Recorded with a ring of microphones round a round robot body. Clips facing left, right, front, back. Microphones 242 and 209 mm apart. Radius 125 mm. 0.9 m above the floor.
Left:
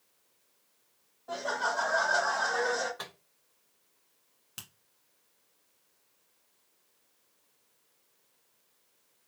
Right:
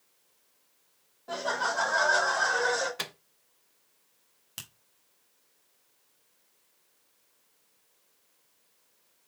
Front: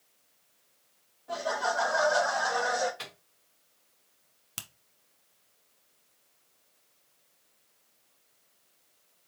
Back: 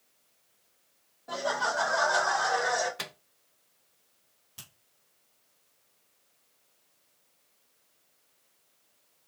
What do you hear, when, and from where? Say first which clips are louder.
1.3 s laughter: right 2 dB, even; 140° right, 1.1 m
3.0 s a microwave: right 4 dB, back 3 dB; 140° right, 0.5 m
4.6 s a finger snap: right 1 dB, front 5 dB; 5° right, 1.0 m